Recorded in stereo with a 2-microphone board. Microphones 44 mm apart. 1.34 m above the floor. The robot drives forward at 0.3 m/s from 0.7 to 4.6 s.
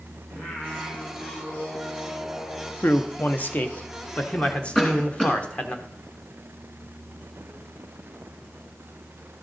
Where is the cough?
20° left (ahead or behind), 2.5 m.